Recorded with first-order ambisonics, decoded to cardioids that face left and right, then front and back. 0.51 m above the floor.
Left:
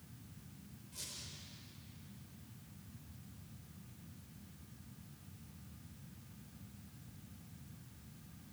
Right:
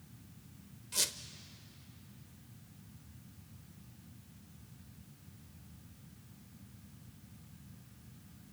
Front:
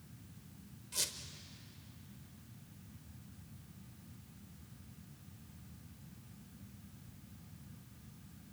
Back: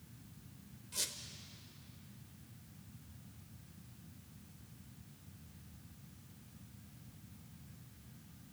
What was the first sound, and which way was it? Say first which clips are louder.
A squeak: right 14 dB, front 2 dB; 80° right.